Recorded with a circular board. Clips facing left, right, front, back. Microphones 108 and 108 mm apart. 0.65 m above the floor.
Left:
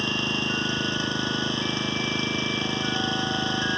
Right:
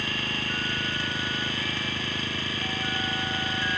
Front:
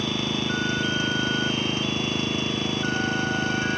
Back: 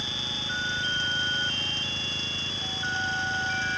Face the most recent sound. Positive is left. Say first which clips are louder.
# left 5 dB, front 12 dB
turn(degrees=25)